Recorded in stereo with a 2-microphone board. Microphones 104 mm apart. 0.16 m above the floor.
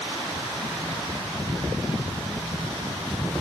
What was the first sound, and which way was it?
Only background noise.